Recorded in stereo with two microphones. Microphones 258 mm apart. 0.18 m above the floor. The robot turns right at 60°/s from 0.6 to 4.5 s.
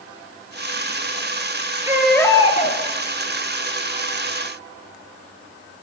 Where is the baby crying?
10° right, 1.0 m; by 2.8 s 45° left, 1.0 m.